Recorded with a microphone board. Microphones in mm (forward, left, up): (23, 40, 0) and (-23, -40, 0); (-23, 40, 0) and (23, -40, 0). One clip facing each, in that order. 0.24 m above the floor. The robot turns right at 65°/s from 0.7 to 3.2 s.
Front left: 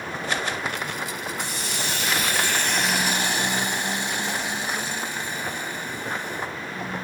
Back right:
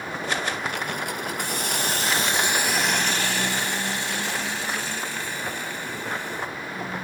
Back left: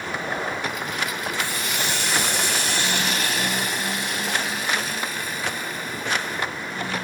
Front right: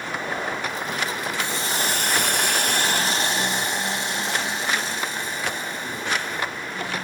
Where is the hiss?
125° right, 0.6 m; by 6.5 s 5° right, 0.6 m.